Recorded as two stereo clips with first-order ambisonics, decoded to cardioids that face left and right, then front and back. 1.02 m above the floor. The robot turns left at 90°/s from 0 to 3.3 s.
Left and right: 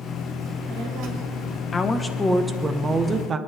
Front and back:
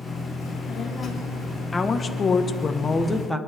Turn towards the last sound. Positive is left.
turn(degrees=-80)